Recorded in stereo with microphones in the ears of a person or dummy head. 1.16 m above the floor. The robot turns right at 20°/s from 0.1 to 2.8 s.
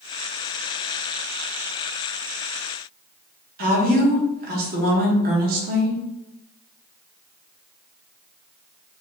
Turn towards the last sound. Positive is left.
turn(degrees=-50)  # may be behind; listen again after turning